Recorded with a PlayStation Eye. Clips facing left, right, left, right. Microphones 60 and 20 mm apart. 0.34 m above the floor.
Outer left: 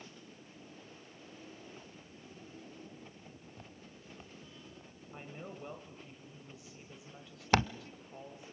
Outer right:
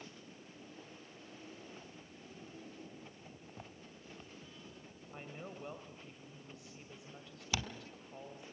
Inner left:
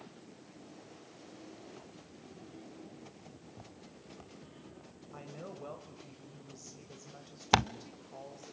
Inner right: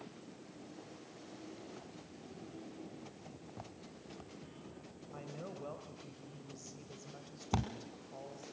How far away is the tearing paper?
About 0.5 m.